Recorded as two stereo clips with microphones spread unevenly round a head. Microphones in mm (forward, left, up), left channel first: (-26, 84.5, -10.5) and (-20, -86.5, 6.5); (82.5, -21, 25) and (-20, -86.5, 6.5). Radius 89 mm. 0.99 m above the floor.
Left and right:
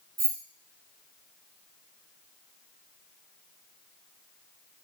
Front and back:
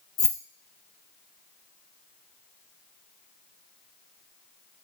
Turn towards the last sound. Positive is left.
turn(degrees=-30)